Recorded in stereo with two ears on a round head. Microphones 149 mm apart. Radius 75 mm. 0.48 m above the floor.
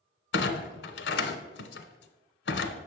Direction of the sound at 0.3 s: 75° left (ahead or behind).